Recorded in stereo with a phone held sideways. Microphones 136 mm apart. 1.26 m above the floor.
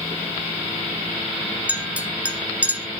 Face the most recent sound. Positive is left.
turn(degrees=-10)  # may be behind; listen again after turning